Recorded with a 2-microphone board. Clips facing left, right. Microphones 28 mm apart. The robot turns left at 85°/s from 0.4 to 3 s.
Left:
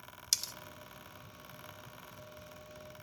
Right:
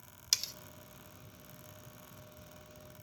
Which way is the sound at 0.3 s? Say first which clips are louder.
Right 1 dB; 15° right (ahead or behind).